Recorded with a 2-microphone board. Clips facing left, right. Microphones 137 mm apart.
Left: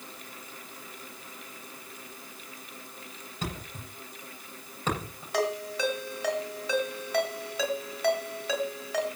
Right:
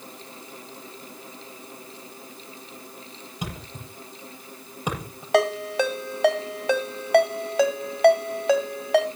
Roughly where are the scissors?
I don't hear scissors.